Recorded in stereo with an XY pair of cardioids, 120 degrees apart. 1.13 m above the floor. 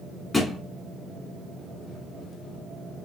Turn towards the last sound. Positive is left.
turn(degrees=20)